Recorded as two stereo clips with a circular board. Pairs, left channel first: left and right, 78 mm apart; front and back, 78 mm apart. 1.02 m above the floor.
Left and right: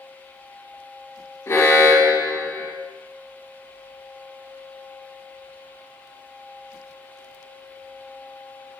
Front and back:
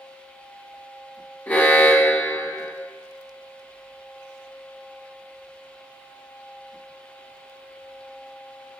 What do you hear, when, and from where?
1.5 s an alarm: 55° left, 1.3 m